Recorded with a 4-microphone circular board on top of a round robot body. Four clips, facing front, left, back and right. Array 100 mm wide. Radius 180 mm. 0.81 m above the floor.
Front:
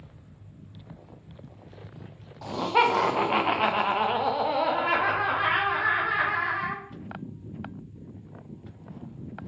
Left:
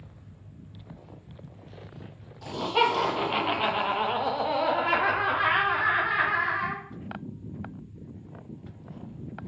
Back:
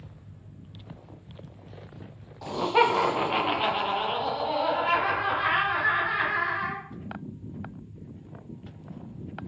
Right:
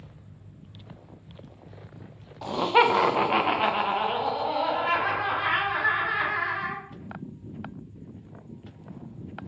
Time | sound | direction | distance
2.4 | laughter | 85° right | 1.0 m